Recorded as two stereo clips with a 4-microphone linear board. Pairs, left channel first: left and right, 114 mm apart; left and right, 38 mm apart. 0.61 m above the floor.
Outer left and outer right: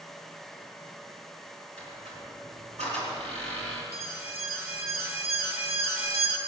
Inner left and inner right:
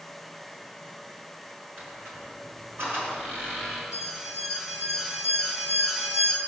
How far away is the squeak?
About 5 m.